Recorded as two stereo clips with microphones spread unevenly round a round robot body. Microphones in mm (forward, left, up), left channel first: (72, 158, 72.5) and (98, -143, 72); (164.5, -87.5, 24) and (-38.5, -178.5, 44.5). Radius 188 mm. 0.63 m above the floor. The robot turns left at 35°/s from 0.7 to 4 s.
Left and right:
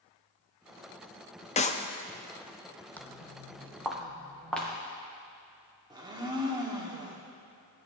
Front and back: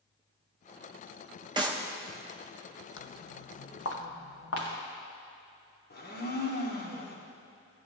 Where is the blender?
10° right, 1.8 m.